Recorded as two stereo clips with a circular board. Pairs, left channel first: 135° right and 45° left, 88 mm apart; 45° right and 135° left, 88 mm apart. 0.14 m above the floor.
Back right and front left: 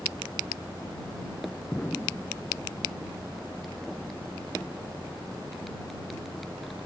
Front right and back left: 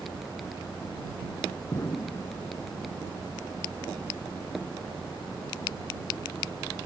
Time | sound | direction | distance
1.7 | an explosion | 70° right | ?